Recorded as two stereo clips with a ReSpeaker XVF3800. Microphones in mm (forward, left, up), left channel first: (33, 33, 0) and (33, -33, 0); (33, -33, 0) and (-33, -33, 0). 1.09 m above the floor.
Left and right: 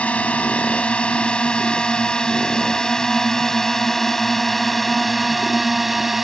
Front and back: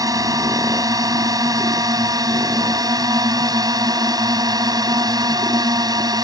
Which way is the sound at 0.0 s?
160° left.